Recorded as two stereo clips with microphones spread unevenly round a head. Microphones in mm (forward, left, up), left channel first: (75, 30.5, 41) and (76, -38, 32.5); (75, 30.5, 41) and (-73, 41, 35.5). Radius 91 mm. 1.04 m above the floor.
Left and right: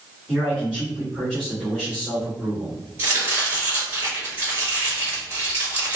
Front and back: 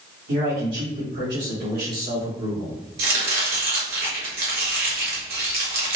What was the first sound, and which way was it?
A man speaking, 175° right.